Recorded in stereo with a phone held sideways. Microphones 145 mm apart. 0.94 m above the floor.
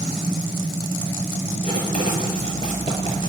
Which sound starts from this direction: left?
Writing, at 1.6 s.